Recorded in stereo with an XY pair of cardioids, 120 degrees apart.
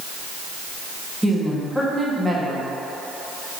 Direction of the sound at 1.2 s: 5° right.